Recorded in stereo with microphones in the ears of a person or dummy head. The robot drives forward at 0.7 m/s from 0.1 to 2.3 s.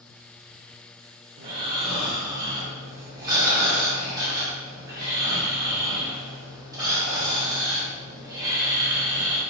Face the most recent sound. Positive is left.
turn(degrees=-20)  # may be behind; listen again after turning